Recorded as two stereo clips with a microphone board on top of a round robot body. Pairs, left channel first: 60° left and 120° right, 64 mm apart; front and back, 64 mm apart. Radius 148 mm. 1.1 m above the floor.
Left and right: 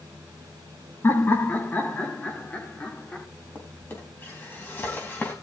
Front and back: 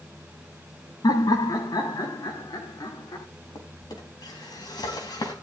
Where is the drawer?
Straight ahead, 4 m.